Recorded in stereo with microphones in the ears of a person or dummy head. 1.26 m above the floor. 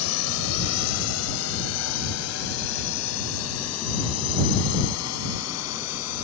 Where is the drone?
85° left; by 6.2 s 80° left.